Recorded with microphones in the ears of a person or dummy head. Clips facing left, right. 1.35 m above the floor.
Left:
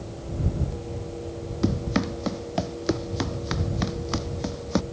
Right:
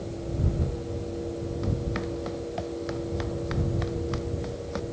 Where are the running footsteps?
75° left (ahead or behind).